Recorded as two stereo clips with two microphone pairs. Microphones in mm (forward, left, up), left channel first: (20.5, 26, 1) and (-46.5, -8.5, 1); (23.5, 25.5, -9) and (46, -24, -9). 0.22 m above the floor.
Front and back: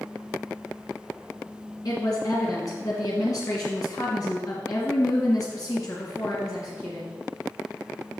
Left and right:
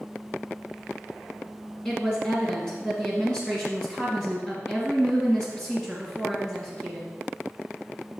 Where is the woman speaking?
40° left, 1.7 m.